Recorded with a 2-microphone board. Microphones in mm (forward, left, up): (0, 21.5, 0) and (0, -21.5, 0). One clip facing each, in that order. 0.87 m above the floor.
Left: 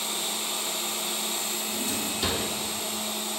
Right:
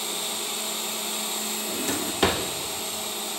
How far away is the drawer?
About 0.9 m.